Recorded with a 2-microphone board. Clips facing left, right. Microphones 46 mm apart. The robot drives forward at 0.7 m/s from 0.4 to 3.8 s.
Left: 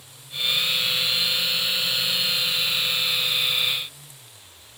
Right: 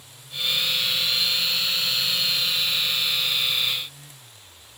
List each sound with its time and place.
Only background noise.